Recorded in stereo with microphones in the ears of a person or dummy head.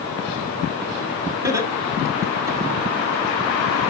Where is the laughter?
15° right (ahead or behind), 4 m.